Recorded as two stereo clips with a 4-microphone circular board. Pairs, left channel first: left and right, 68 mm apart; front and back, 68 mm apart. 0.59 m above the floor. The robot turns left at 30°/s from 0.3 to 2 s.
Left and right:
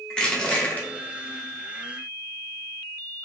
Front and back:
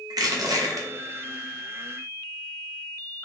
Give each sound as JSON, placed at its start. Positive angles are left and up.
{"t": 0.1, "sound": "crushing", "azimuth_deg": 170, "distance_m": 0.8}